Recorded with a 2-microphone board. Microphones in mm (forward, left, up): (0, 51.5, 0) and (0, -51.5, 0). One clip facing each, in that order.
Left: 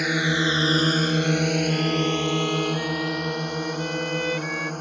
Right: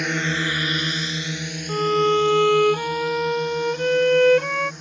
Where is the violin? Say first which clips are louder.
Right 4 dB; 55° right (ahead or behind).